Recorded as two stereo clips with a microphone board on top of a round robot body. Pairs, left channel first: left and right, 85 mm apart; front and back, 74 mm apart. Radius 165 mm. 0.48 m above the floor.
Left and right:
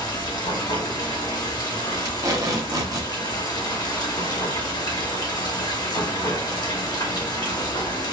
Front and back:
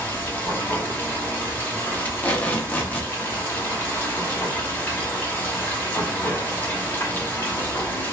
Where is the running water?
60° left, 1.5 m.